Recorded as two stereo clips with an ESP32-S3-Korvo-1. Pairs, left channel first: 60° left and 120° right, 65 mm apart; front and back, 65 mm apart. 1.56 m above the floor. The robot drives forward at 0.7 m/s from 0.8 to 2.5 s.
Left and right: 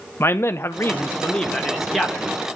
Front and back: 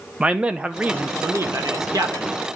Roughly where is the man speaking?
Left.